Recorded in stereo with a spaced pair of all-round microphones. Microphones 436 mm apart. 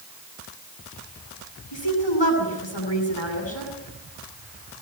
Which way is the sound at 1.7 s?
70° left (ahead or behind).